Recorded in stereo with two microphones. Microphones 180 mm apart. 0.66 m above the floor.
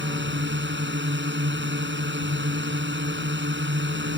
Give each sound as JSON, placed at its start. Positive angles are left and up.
{"t": 0.0, "sound": "a drone", "side_deg": -80}